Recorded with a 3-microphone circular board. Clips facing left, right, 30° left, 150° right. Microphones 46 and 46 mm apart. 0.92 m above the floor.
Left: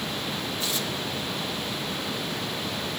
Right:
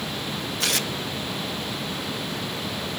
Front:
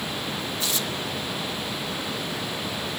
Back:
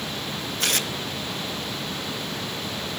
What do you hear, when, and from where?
0.6 s tearing paper: 115° right, 0.5 m